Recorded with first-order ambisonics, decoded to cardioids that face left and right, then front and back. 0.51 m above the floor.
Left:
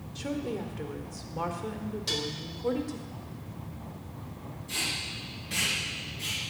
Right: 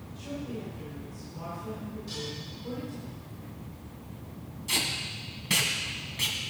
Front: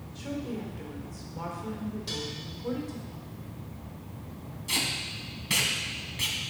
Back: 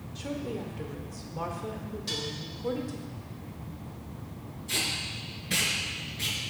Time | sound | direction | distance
0.1 | a woman speaking | 100° left | 1.5 m
2.1 | dishes clattering | 90° left | 1.3 m
4.7 | tape being pulled | 55° right | 2 m